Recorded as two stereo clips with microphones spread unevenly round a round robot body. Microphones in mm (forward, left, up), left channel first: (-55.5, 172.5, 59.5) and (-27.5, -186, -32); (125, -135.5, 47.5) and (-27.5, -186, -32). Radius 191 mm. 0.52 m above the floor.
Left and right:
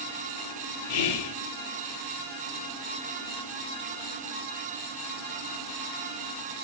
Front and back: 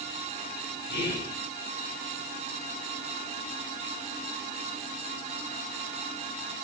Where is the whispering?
75° left, 0.9 m.